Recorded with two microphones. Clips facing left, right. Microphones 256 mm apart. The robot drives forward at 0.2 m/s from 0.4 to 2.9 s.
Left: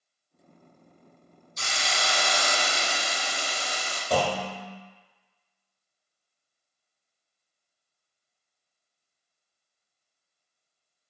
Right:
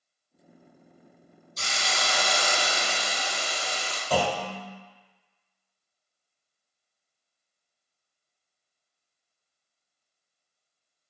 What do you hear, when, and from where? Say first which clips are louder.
1.6 s a hiss: even; 35° right (ahead or behind), 1.7 m
4.1 s a clunk: even; 15° left (ahead or behind), 0.8 m